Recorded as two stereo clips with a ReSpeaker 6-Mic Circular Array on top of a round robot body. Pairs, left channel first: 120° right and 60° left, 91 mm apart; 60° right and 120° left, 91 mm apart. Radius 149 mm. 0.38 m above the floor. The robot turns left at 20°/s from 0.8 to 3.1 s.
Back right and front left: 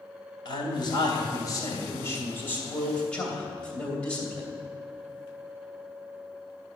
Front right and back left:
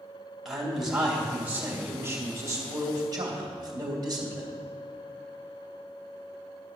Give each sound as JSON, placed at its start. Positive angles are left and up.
{"t": 0.5, "sound": "a man speaking", "azimuth_deg": -150, "distance_m": 2.5}